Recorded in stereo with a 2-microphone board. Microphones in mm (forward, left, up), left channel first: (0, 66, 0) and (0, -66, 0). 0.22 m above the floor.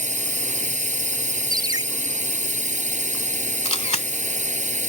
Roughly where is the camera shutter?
Left.